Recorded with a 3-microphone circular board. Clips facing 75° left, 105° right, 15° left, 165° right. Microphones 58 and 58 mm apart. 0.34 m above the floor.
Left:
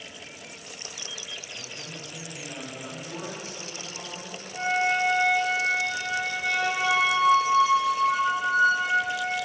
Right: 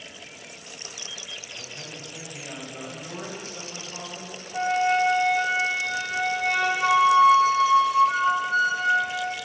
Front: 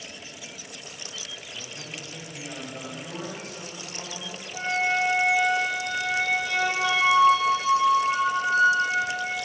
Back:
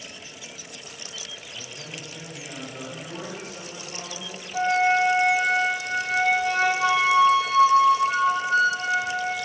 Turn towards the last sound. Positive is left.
turn(degrees=-135)